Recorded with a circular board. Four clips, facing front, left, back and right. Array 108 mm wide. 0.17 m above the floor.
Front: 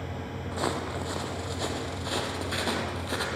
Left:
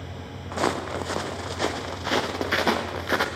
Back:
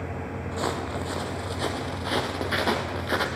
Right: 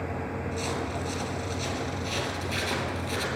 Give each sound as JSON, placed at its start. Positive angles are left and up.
{"t": 0.5, "sound": "footsteps", "azimuth_deg": 85, "distance_m": 3.0}